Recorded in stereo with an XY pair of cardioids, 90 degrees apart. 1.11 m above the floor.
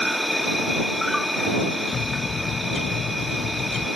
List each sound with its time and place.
0.0 s an insect: 5° left
1.9 s a bird: 55° left